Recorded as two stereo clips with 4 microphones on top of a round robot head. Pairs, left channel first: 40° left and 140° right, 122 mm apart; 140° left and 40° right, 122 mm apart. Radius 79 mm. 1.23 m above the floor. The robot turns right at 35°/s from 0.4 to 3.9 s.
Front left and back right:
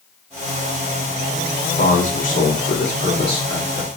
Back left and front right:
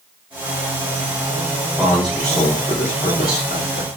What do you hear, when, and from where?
1.8 s a man speaking: 35° left, 2.0 m; by 3.9 s 105° left, 2.0 m